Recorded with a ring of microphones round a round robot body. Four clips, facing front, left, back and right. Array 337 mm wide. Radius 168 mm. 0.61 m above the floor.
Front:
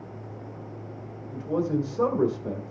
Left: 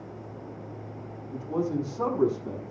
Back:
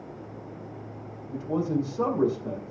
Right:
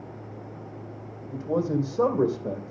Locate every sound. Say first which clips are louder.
1.3 s a man speaking: right 3 dB, front 1 dB; 70° right, 3 m